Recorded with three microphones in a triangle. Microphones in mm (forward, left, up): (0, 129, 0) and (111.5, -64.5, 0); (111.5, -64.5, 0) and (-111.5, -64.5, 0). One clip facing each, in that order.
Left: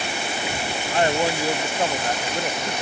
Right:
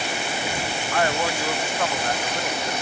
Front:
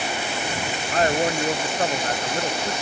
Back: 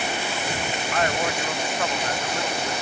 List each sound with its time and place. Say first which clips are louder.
0.9 s a man speaking: left 3 dB, front 5 dB; 55° left